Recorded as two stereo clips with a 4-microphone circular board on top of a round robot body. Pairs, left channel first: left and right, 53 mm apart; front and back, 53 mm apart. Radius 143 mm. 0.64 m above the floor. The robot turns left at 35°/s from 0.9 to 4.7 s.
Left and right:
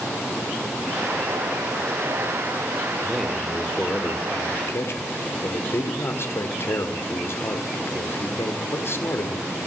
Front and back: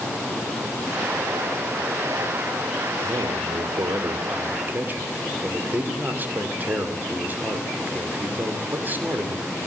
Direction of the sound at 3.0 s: 175° right.